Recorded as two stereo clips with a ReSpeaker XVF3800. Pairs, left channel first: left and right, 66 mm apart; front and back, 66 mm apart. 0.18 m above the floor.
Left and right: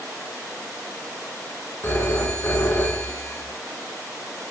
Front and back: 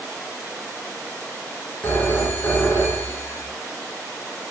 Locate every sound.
1.8 s a phone ringing: 45° left, 1.8 m